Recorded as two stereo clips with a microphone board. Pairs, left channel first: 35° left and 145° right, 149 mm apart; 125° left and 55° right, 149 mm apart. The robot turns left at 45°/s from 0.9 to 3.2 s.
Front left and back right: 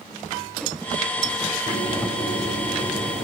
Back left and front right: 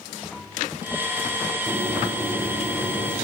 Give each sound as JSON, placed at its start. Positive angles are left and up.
{"t": 1.7, "sound": "a bird", "azimuth_deg": -120, "distance_m": 2.5}